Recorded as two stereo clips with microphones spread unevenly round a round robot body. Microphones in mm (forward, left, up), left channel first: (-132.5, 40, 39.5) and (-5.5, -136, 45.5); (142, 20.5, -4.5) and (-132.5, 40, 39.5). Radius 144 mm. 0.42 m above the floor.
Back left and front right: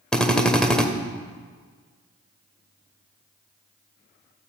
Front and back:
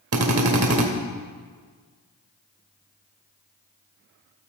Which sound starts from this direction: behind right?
A drill, at 0.1 s.